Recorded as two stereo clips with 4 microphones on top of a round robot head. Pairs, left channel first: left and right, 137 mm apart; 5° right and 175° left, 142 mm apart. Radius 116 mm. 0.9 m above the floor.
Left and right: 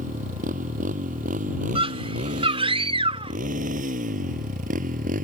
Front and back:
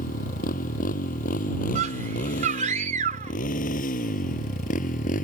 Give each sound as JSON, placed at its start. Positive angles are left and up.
{"t": 0.0, "sound": "a motorcycle", "azimuth_deg": -45}
{"t": 1.8, "sound": "a scream", "azimuth_deg": -140}